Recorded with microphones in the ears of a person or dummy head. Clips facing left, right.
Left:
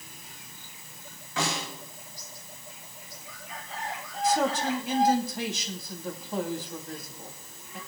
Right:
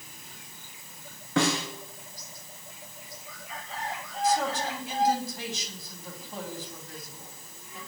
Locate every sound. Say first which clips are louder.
1.4 s a snare drum: right 6 dB; 55° right (ahead or behind), 3.5 m
4.2 s a man speaking: left 2 dB; 55° left (ahead or behind), 2.5 m